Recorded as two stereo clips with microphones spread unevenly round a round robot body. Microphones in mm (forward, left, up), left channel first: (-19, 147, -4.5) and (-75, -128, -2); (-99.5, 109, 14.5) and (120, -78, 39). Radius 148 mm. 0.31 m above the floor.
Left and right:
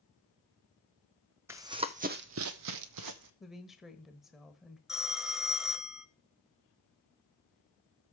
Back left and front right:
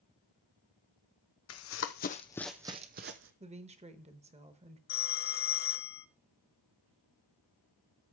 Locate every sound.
1.5 s running footsteps: straight behind, 0.9 m; by 3.3 s 85° right, 0.9 m
3.4 s a woman speaking: 15° right, 0.9 m
4.9 s a phone ringing: 170° left, 0.5 m